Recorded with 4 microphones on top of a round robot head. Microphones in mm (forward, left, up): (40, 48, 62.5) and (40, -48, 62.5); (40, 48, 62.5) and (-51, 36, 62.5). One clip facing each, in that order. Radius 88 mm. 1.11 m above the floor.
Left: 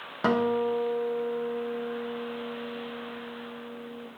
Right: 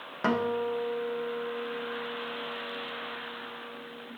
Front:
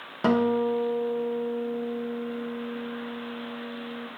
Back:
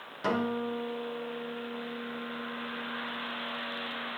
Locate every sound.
0.2 s a guitar: 15° left, 0.7 m